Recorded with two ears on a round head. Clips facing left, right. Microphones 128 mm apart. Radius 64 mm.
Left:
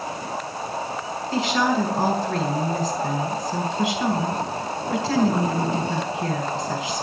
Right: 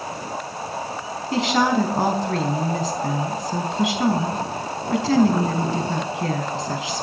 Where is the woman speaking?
65° right (ahead or behind), 4.5 m.